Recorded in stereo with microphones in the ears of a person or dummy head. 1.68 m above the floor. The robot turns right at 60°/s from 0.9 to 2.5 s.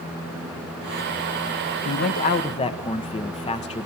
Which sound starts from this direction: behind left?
A man speaking, at 1.9 s.